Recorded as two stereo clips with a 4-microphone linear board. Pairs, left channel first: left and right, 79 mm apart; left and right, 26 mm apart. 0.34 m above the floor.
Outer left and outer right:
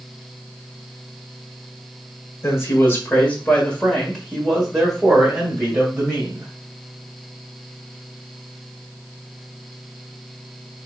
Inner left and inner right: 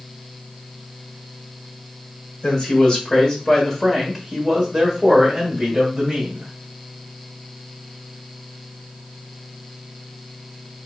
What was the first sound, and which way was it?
A man speaking, 35° left (ahead or behind).